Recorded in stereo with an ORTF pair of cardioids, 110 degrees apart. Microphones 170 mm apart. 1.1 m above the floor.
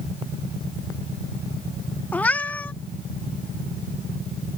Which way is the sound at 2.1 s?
10° left.